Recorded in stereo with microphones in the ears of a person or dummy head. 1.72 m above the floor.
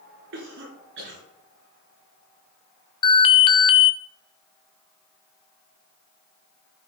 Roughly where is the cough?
Right.